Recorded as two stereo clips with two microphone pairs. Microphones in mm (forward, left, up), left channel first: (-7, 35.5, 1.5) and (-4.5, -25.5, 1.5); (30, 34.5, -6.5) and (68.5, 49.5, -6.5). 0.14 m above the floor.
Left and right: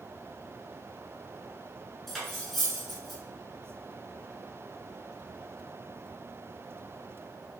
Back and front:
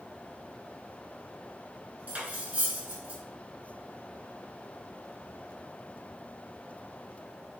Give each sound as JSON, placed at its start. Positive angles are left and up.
{"t": 2.1, "sound": "cutlery clinking", "azimuth_deg": 5, "distance_m": 0.8}